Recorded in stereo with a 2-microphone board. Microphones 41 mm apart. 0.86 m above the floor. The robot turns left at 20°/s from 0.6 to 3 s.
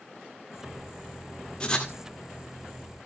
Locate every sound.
1.6 s writing: 25° left (ahead or behind), 1.8 m; by 1.9 s 20° left (ahead or behind), 1.8 m